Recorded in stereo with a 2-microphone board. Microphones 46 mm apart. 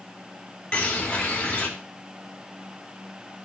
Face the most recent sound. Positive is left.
turn(degrees=25)  # may be behind; listen again after turning